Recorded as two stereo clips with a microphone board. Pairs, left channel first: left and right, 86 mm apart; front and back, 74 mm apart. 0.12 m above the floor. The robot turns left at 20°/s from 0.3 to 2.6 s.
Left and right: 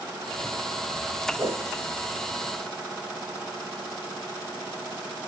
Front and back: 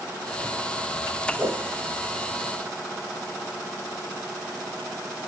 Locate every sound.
1.4 s a whoosh: 115° right, 1.6 m; by 1.7 s 120° right, 1.6 m